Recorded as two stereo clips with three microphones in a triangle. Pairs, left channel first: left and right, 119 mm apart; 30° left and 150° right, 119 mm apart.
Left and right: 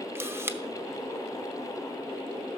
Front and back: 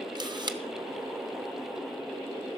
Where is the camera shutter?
145° right, 0.6 m.